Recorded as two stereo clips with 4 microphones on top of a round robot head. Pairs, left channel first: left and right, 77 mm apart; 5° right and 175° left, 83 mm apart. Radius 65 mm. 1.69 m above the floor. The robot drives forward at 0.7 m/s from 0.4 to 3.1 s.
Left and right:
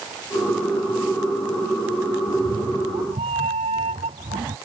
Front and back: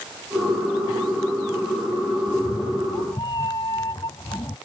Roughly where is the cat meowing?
Ahead right.